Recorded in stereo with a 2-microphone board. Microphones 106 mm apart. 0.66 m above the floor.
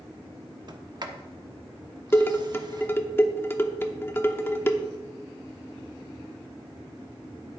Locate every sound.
0.7 s a sliding door: 45° right (ahead or behind), 1.1 m
2.1 s dishes clattering: 25° left (ahead or behind), 0.9 m